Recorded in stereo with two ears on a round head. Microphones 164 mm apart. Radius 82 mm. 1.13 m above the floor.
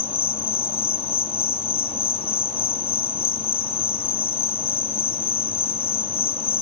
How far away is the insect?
About 0.9 m.